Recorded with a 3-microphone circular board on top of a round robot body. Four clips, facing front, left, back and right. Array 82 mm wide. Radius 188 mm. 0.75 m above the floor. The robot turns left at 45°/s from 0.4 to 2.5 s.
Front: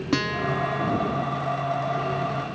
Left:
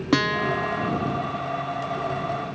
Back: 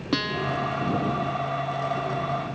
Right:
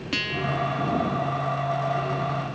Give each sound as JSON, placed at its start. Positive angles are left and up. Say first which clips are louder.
{"t": 0.1, "sound": "a guitar", "louder": "left 6 dB, front 1 dB", "azimuth_deg": 85}